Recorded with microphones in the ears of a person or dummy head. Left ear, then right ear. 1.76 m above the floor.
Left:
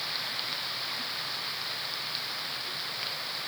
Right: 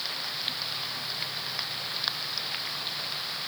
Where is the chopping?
No chopping in this recording.